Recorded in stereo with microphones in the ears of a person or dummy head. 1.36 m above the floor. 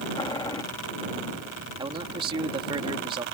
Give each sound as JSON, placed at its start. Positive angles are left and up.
{"t": 0.2, "sound": "boiling", "side_deg": 20}
{"t": 1.8, "sound": "a man speaking", "side_deg": -30}